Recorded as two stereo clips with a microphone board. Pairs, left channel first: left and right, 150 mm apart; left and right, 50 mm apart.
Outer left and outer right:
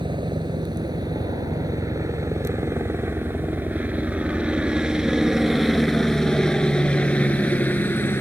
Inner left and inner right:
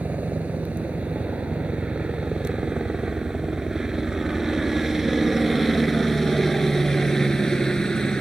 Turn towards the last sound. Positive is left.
turn(degrees=15)  # may be behind; listen again after turning